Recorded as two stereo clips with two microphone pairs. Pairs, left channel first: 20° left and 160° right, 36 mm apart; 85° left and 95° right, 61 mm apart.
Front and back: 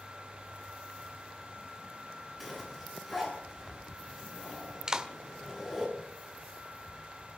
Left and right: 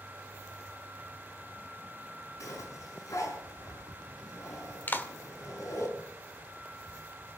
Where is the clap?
135° left, 1.6 m.